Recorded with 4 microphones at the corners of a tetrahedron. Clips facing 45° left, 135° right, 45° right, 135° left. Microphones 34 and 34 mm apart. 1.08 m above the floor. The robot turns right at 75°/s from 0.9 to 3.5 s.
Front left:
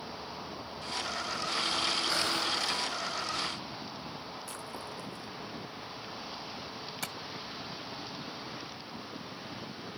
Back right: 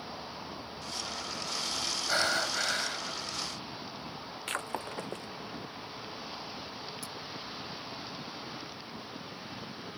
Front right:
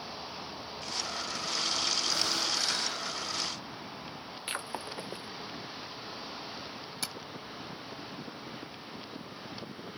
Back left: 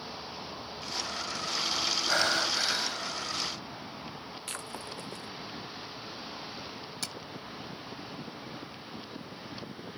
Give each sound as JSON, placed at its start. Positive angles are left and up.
{"t": 2.1, "sound": "breathing", "azimuth_deg": 160}
{"t": 4.5, "sound": "breaking glass", "azimuth_deg": -110}
{"t": 7.0, "sound": "tapping", "azimuth_deg": 35}